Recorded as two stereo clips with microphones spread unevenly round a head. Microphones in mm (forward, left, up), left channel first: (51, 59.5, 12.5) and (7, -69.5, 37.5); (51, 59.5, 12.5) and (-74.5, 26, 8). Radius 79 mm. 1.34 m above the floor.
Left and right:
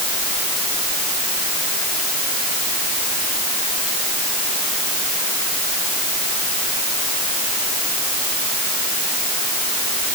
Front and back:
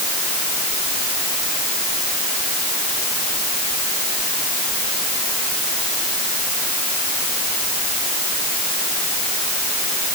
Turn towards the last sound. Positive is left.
No sound to turn to.